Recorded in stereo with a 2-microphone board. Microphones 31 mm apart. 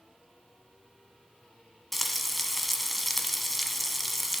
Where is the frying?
5° left (ahead or behind), 1.4 m.